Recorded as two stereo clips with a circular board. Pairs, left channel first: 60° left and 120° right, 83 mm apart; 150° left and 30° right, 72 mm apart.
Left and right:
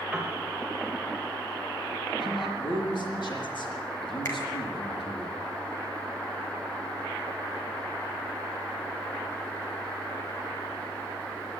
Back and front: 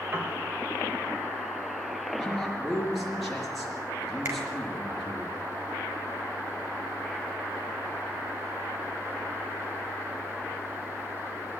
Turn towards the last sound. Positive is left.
turn(degrees=15)